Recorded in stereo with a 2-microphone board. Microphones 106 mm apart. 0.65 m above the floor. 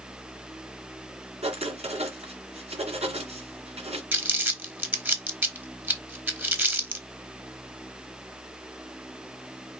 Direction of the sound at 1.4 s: 80° right.